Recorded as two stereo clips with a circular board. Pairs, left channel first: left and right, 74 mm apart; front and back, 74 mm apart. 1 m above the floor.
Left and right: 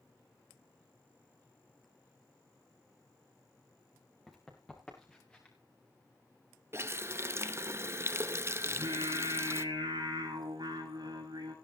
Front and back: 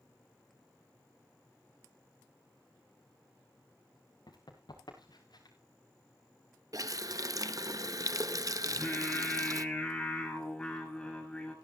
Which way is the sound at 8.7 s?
75° right.